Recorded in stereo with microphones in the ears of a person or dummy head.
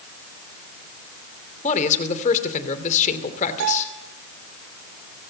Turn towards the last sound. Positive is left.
turn(degrees=-70)  # may be behind; listen again after turning